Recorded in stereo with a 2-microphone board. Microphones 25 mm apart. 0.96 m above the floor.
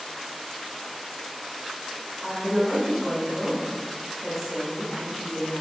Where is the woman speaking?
5° right (ahead or behind), 1.7 m.